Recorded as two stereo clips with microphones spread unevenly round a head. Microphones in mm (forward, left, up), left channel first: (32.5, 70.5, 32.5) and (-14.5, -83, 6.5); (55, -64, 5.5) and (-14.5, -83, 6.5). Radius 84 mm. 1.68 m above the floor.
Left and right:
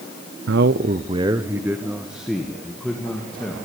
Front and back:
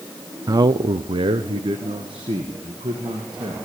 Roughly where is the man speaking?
Behind right.